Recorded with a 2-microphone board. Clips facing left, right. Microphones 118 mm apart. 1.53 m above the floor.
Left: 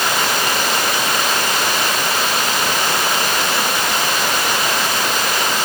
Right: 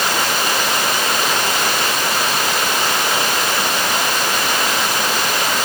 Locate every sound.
Only background noise.